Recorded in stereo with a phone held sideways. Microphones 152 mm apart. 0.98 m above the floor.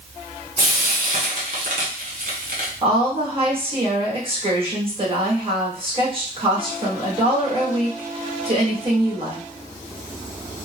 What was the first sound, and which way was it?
Frying, 60° right (ahead or behind).